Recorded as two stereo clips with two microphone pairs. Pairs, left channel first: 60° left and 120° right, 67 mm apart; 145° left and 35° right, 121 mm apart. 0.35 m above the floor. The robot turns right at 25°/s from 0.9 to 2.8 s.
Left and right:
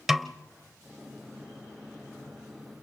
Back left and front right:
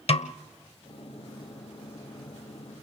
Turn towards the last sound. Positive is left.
turn(degrees=-155)